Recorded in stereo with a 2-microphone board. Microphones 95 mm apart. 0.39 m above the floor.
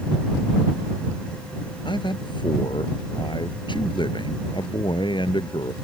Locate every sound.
1.9 s a man speaking: 60° left (ahead or behind)